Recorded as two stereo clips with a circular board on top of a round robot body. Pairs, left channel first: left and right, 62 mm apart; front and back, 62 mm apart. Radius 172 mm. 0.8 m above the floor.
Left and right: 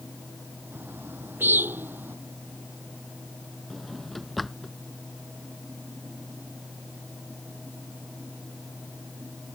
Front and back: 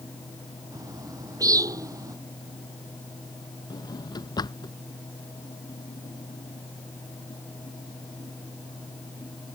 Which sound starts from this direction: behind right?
A bird, at 0.7 s.